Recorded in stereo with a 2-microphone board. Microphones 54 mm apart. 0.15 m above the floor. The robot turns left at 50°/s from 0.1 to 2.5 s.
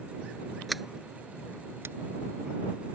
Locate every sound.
0.7 s a sliding door: centre (ahead or behind); by 2.0 s 55° right (ahead or behind)